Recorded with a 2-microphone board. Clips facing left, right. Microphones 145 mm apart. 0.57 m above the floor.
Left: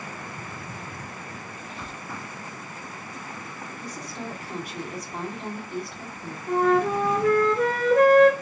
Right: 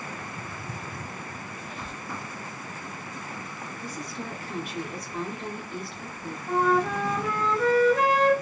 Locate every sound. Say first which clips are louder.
1.6 s a squeak: even; 25° left (ahead or behind), 2.5 m
3.8 s a woman speaking: even; 40° left (ahead or behind), 4 m
6.5 s a flute: left 3 dB; 50° left (ahead or behind), 3 m